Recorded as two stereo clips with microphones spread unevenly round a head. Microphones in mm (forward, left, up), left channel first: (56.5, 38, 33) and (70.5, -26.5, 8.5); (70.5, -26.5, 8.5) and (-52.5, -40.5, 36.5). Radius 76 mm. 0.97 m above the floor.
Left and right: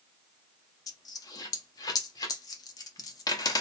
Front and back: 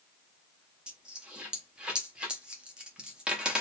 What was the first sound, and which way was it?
A dropped coin, 110° left.